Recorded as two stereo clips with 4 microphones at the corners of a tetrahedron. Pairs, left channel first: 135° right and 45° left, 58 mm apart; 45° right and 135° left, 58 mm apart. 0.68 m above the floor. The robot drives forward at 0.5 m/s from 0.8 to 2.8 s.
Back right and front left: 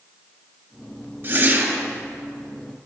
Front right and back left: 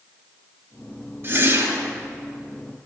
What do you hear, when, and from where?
1.2 s a whoosh: 95° left, 1.6 m; by 1.9 s 105° left, 1.6 m